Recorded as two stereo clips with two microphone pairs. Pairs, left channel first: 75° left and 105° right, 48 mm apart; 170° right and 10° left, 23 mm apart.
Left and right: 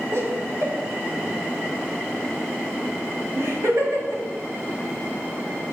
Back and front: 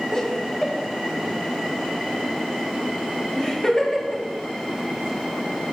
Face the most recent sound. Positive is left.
turn(degrees=-110)